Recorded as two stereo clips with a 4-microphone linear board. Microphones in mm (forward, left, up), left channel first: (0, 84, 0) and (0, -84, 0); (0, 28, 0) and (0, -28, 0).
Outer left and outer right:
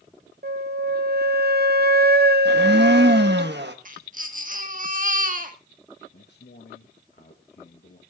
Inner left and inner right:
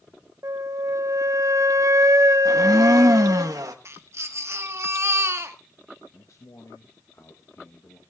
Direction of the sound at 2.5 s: 80° right.